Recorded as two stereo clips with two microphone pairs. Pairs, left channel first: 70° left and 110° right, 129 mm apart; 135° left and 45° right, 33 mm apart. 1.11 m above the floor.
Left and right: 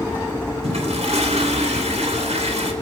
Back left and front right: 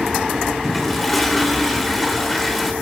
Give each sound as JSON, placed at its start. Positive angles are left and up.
{"t": 0.6, "sound": "a toilet flushing", "azimuth_deg": -140, "distance_m": 3.0}